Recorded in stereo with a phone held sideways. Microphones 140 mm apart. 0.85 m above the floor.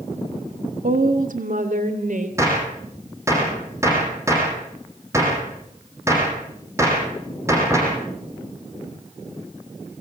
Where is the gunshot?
20° right (ahead or behind), 9 m.